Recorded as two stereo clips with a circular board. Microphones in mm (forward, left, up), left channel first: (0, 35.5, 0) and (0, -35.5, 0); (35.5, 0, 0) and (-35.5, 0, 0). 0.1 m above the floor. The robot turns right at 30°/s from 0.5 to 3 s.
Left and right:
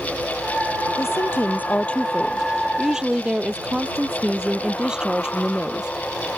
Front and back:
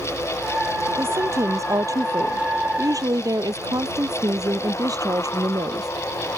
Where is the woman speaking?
130° left; by 5.9 s 170° right.